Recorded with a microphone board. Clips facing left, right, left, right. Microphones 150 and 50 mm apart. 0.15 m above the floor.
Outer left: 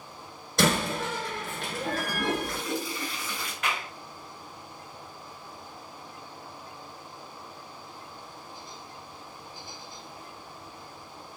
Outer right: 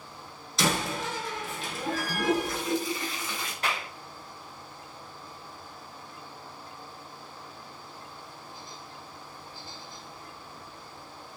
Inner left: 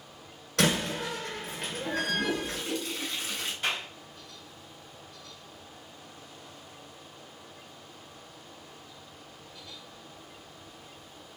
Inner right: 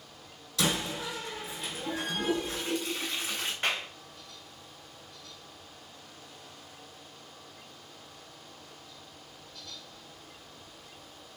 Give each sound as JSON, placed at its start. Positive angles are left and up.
{"t": 0.6, "sound": "a door slam", "side_deg": 60, "distance_m": 1.3}
{"t": 2.1, "sound": "a toilet flushing", "side_deg": -25, "distance_m": 1.6}
{"t": 3.6, "sound": "a clap", "side_deg": -35, "distance_m": 1.8}